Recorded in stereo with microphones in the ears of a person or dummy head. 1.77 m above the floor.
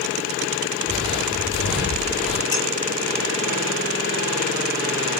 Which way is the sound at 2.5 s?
20° left (ahead or behind).